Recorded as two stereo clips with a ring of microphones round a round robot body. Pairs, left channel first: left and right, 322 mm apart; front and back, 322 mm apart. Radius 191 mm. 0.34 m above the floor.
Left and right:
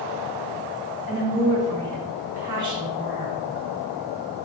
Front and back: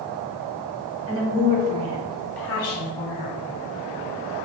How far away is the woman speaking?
About 2.5 m.